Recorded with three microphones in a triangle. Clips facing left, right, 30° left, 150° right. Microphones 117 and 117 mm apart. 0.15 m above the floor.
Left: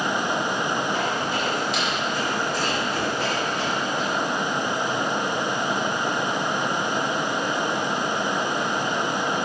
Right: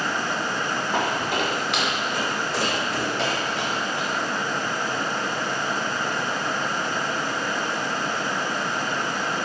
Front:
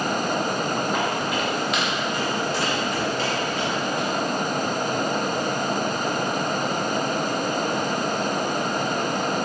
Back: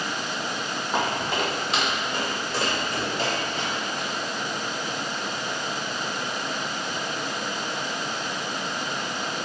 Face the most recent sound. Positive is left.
turn(degrees=-90)